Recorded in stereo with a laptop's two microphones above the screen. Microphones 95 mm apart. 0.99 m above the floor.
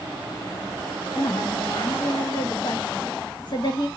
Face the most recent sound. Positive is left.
turn(degrees=50)  # may be behind; listen again after turning